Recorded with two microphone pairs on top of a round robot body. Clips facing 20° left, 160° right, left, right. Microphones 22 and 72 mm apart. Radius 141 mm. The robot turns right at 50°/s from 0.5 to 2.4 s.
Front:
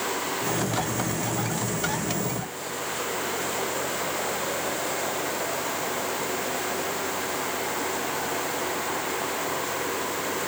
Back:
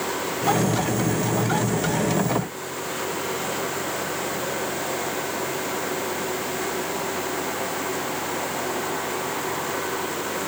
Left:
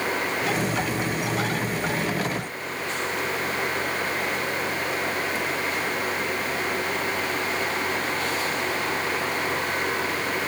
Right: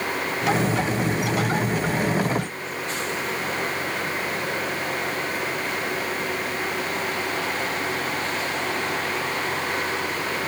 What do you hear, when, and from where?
Only background noise.